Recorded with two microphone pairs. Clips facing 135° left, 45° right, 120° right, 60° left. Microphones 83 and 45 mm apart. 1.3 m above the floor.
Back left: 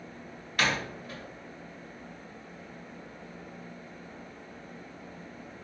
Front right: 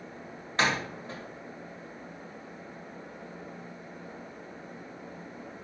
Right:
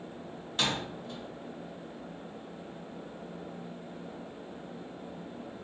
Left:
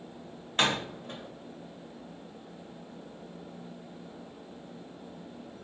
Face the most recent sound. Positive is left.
turn(degrees=15)